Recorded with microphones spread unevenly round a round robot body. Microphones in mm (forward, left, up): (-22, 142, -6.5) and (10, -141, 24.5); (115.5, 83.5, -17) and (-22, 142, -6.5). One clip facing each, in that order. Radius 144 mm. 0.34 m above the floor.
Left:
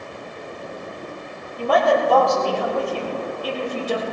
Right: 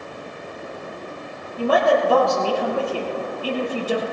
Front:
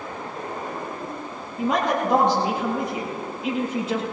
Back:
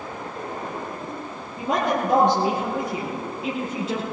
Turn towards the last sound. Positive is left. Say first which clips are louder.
# right 1 dB, front 1 dB
turn(degrees=-170)